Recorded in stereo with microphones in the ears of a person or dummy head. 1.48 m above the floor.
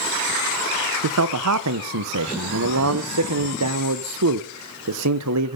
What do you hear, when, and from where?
1.0 s a man speaking: 85° right, 1.1 m